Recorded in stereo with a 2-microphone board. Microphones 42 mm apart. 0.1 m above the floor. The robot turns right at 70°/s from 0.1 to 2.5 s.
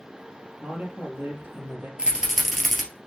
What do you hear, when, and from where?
0.6 s a man speaking: 155° right, 2.5 m; by 1.9 s 65° right, 2.5 m
2.0 s a rattle: 30° right (ahead or behind), 1.9 m; by 2.8 s centre (ahead or behind), 1.9 m